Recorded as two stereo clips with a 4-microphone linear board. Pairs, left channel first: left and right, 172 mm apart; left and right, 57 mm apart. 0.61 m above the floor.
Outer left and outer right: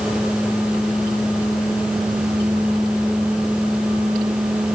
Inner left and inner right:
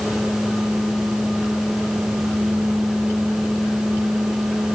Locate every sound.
Only background noise.